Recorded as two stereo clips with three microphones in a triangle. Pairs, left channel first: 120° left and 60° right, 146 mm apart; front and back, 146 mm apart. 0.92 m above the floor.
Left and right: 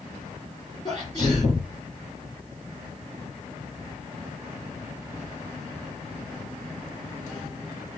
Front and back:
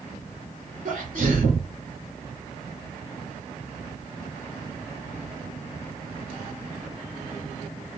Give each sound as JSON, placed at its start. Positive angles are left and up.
{"t": 0.8, "sound": "a sneeze", "azimuth_deg": 175, "distance_m": 2.5}